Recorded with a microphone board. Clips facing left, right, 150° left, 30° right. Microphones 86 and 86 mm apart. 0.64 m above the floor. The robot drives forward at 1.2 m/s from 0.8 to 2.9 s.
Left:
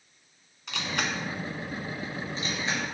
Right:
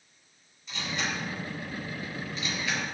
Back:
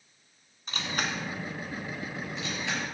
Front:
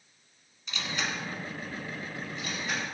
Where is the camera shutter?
105° left, 1.7 m; by 2.8 s 150° left, 3 m.